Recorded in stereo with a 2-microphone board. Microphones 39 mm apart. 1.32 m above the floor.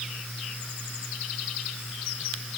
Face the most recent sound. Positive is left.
No sound to turn to.